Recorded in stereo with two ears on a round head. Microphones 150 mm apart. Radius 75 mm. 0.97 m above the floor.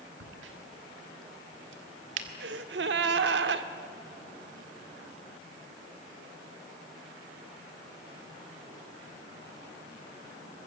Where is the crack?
85° right, 1.8 m.